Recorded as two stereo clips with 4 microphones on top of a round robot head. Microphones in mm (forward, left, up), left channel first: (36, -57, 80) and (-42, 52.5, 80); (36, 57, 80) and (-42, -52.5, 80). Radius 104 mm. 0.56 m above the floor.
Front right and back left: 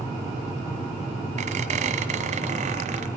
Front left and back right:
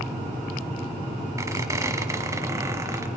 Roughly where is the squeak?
Behind.